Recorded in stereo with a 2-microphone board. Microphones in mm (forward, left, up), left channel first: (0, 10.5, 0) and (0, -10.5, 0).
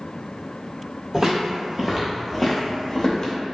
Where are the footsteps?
40° right (ahead or behind), 1.0 m; by 3.3 s 35° left (ahead or behind), 0.9 m.